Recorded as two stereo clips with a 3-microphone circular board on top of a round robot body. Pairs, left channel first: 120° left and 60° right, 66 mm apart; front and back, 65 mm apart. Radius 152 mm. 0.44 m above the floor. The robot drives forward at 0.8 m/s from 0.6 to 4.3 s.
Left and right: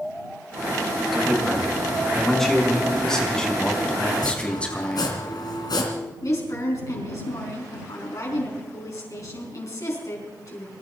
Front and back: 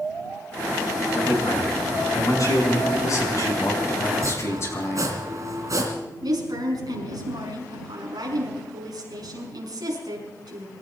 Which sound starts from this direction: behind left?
Chopping, at 4.1 s.